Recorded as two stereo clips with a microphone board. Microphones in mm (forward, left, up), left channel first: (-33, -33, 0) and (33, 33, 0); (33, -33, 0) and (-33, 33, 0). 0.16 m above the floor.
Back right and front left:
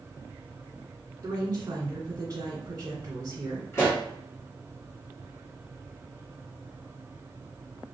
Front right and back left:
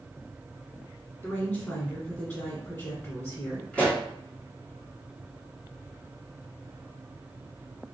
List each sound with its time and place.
1.2 s a woman speaking: 10° left, 1.6 m
3.7 s a pop: 110° right, 1.5 m